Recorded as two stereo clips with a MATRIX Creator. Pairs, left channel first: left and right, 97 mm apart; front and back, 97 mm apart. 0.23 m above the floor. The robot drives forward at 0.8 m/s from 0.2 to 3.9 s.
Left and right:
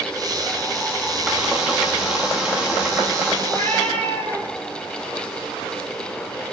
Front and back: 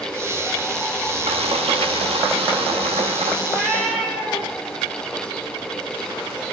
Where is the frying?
165° right, 5 m; by 3.4 s 170° right, 6.5 m.